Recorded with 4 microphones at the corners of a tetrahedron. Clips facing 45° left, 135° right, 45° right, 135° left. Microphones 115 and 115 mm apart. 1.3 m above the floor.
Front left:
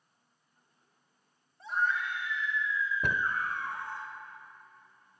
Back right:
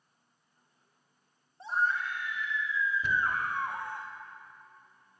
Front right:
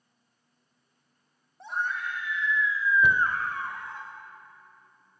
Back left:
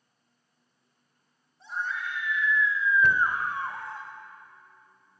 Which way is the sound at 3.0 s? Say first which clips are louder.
Even, even; 30° left.